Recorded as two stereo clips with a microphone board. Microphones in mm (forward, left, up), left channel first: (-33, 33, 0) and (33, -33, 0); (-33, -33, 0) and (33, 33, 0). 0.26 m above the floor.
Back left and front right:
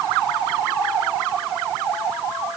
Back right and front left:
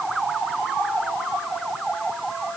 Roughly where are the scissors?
I don't hear scissors.